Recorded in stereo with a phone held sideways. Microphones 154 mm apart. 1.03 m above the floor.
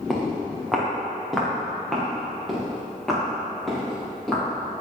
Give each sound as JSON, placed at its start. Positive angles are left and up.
{"t": 0.1, "sound": "footsteps", "side_deg": 0, "distance_m": 5.5}